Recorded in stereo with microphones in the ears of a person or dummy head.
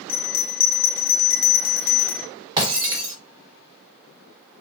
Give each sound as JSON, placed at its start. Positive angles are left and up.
{"t": 0.1, "sound": "a bell", "side_deg": 65, "distance_m": 0.7}
{"t": 2.6, "sound": "breaking glass", "side_deg": -25, "distance_m": 1.4}